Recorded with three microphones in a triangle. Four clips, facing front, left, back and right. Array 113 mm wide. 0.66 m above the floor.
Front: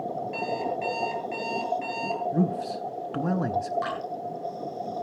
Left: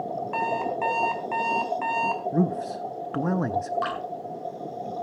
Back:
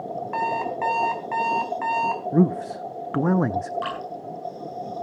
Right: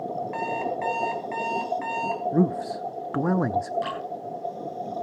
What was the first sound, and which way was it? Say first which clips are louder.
An alarm clock: left 3 dB, back 6 dB; 145° left.